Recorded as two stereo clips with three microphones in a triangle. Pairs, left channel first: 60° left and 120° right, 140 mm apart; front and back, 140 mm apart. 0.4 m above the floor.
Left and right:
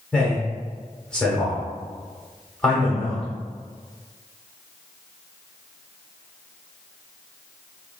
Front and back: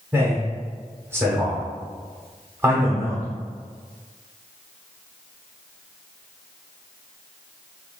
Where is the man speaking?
135° left, 0.9 m.